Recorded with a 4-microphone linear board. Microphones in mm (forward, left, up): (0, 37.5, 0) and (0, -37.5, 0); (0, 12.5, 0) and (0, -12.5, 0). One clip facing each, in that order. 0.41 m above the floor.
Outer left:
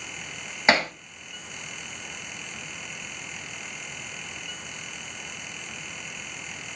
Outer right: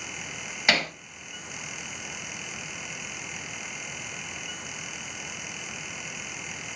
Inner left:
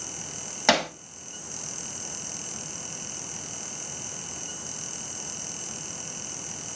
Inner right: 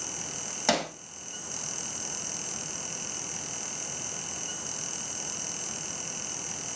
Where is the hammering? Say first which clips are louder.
Outer left 4 dB, inner left 5 dB; 30° left (ahead or behind), 1.7 m.